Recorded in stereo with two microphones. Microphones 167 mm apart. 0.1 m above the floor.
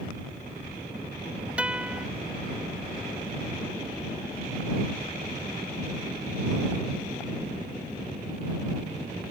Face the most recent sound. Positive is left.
turn(degrees=-5)  # may be behind; listen again after turning